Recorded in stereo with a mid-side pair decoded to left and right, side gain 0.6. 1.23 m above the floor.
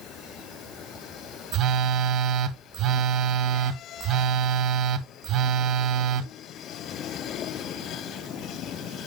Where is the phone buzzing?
60° right, 0.8 m.